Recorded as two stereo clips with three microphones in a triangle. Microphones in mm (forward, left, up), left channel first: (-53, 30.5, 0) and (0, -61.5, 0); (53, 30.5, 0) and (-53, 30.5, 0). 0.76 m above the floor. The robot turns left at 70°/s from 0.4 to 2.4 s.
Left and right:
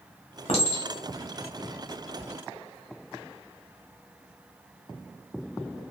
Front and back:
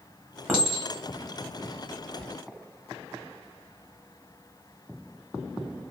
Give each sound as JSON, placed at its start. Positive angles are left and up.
{"t": 0.5, "sound": "a clink", "azimuth_deg": 105, "distance_m": 1.0}